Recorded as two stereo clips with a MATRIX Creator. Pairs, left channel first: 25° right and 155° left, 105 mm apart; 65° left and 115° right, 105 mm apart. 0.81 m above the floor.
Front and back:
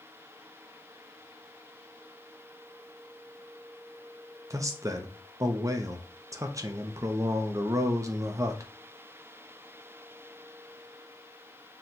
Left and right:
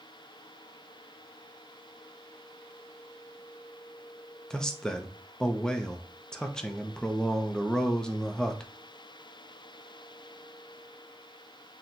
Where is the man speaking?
145° left, 0.6 m.